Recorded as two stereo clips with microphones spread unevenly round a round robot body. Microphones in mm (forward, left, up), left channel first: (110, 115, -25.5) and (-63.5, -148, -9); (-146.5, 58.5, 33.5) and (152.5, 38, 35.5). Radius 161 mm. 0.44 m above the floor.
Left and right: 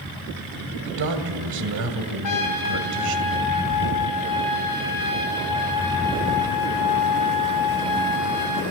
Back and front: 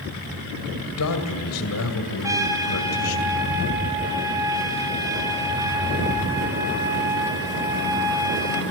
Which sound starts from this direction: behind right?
A man speaking, at 0.8 s.